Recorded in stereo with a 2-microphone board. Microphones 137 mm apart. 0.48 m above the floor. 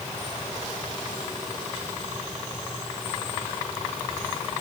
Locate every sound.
Only background noise.